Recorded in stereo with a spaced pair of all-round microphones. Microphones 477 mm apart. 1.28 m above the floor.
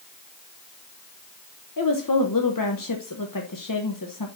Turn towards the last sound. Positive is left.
turn(degrees=45)  # may be behind; listen again after turning